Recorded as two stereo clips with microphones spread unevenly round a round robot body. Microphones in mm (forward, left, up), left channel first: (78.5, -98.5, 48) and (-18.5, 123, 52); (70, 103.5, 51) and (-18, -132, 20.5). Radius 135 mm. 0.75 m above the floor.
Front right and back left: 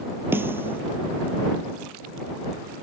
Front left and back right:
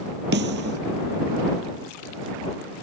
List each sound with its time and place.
0.3 s a snare drum: 165° right